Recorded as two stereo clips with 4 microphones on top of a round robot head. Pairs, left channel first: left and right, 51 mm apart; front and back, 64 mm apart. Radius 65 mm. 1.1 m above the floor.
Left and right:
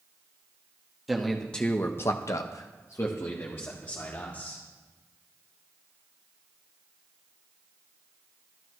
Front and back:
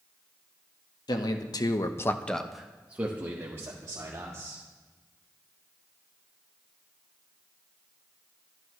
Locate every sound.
1.1 s a man speaking: straight ahead, 1.7 m; by 4.6 s 135° left, 3.5 m